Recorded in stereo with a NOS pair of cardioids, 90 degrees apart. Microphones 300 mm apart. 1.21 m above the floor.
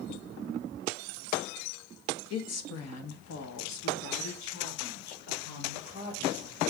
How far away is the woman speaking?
About 1.8 m.